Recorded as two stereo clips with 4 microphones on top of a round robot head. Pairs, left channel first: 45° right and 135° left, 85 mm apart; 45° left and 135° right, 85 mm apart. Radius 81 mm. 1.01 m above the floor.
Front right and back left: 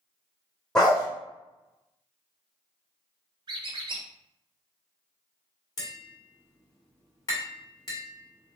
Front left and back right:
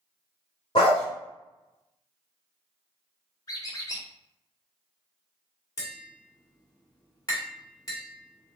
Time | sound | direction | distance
0.8 | a dog barking | 35° left | 0.9 m
3.5 | a squeak | 100° left | 1.1 m
5.8 | tapping | straight ahead | 1.9 m